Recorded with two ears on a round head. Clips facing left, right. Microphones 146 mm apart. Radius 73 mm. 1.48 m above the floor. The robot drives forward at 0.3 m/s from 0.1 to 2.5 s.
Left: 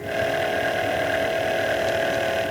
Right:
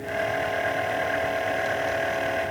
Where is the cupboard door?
No cupboard door in this recording.